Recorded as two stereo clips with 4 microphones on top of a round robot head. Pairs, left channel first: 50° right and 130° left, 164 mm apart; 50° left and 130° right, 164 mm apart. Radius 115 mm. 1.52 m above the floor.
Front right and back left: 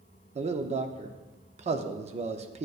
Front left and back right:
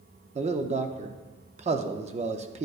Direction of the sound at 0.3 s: Straight behind.